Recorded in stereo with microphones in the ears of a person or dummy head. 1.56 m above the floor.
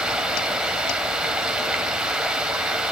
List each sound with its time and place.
0.0 s running water: 5° right (ahead or behind), 2 m